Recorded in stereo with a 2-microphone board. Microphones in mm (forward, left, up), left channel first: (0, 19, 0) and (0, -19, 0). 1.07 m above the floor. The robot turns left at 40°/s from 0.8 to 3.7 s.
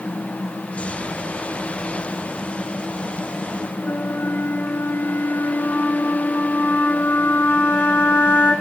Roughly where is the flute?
Left.